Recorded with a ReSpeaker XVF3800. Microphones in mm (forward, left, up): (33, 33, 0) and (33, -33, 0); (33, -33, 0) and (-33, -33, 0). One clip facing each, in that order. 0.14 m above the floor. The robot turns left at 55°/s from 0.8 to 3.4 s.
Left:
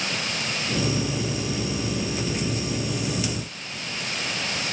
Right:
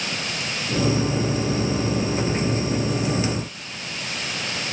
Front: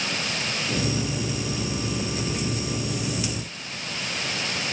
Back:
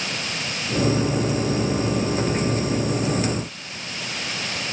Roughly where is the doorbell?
I don't hear a doorbell.